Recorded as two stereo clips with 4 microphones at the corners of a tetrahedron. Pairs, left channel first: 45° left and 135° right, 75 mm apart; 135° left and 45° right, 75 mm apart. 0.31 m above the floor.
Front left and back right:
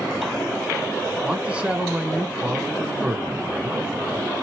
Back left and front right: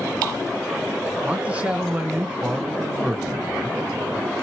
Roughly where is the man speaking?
Right.